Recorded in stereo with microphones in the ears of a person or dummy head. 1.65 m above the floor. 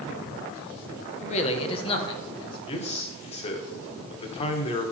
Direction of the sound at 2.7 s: 35° left (ahead or behind).